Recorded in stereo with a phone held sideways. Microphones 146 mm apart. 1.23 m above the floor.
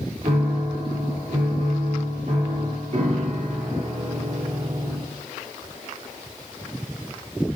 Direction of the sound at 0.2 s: 55° right (ahead or behind).